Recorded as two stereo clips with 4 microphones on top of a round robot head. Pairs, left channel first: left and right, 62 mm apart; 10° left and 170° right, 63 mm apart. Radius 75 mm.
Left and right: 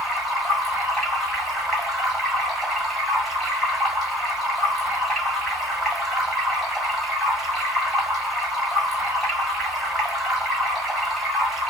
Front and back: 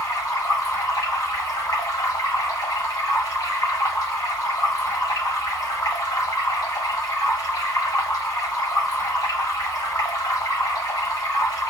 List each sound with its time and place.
0.0 s running water: straight ahead, 1.3 m